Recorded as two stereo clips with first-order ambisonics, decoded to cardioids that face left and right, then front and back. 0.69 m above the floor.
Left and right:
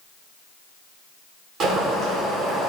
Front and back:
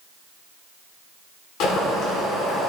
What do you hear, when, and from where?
1.6 s boiling: 35° right, 1.8 m